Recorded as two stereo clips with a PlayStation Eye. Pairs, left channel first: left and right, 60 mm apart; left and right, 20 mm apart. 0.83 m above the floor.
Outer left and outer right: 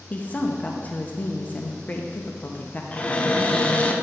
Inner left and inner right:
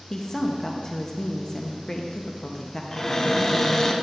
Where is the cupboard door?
25° left (ahead or behind), 0.6 m.